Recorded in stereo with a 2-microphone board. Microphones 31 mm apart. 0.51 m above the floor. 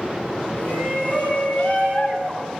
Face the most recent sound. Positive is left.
turn(degrees=35)  # may be behind; listen again after turning